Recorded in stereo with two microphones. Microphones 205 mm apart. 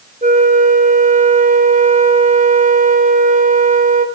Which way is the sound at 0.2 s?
35° right (ahead or behind).